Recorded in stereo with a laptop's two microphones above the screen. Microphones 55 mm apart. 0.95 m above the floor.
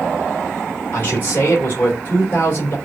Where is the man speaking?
40° left (ahead or behind), 2.5 m.